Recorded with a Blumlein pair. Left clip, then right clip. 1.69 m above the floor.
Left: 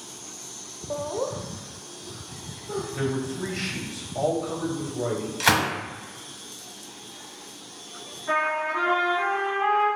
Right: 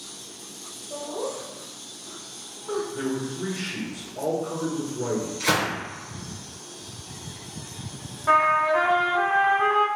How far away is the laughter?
About 0.6 m.